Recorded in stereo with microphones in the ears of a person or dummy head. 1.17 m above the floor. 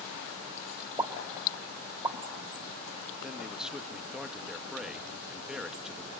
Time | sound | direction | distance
1.0 | a pop | 25° right (ahead or behind) | 2.5 m
3.2 | a man speaking | 5° right (ahead or behind) | 1.4 m